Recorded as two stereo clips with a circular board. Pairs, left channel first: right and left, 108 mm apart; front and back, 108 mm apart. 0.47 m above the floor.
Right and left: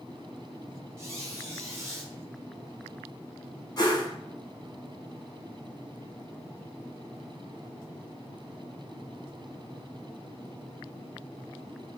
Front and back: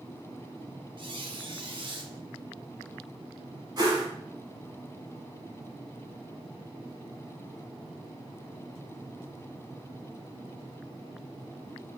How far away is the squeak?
About 0.5 m.